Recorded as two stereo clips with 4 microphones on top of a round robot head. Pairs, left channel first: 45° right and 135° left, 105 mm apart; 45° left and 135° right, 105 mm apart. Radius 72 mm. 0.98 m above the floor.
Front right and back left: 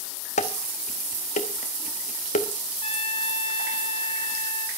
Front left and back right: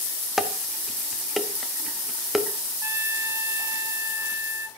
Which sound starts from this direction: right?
A trumpet, at 2.8 s.